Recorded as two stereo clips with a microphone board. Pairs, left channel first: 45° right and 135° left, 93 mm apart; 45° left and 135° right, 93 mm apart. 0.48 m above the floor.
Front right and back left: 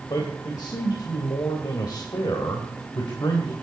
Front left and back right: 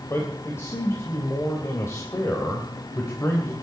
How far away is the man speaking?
About 2.5 m.